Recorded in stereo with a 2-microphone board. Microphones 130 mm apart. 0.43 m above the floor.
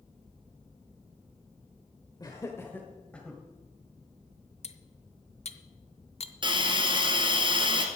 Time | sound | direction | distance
2.2 | laughter | 30° left (ahead or behind) | 1.2 m
4.6 | cutlery clinking | 55° left (ahead or behind) | 0.8 m
6.4 | a hiss | 40° right (ahead or behind) | 1.8 m